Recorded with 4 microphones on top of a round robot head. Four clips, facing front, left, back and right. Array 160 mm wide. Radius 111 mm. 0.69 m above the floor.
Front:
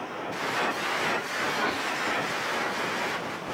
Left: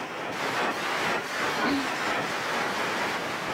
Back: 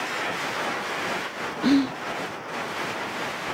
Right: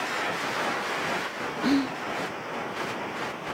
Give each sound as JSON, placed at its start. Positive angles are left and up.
{"t": 1.6, "sound": "whispering", "azimuth_deg": -170}